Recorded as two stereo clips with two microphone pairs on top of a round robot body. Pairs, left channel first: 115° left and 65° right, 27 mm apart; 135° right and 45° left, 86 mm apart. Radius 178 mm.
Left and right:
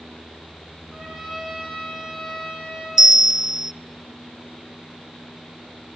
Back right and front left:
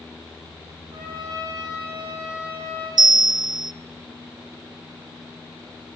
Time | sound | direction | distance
0.9 | a trumpet | 20° left | 9.5 m
3.0 | a bell | 10° left | 0.6 m